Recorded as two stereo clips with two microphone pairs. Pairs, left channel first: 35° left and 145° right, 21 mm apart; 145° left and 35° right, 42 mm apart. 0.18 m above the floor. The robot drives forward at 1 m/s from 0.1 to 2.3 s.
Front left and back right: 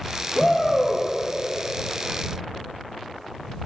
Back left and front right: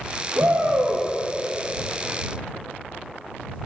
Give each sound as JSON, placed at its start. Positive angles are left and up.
{"t": 0.3, "sound": "a shout", "azimuth_deg": -35, "distance_m": 4.5}